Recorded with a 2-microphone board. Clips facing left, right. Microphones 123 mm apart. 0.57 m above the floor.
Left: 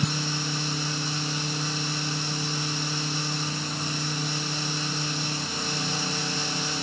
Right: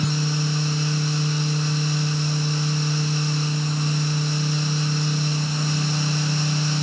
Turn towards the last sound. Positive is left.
No sound to turn to.